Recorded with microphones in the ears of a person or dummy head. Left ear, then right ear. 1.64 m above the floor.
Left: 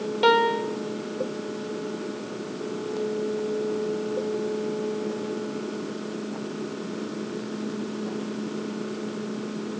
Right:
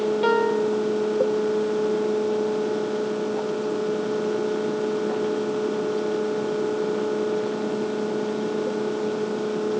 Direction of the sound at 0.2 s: 15° left (ahead or behind).